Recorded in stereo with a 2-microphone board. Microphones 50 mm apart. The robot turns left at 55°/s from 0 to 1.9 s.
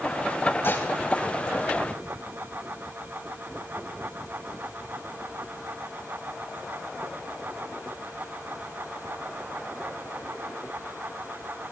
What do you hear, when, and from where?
0.6 s dishes clattering: 45° left (ahead or behind), 4 m; by 0.9 s 35° left (ahead or behind), 4 m